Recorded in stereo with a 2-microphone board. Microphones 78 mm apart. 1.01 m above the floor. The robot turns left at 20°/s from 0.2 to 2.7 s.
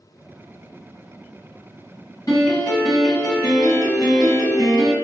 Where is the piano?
45° left (ahead or behind), 1.3 m; by 4.9 s 50° left (ahead or behind), 1.3 m.